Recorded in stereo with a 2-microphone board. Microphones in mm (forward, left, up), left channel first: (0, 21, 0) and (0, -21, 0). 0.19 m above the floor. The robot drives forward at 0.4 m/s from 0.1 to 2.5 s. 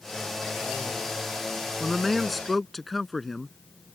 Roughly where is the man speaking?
Centre.